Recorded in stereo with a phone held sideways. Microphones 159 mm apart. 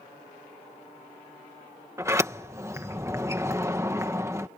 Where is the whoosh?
No whoosh in this recording.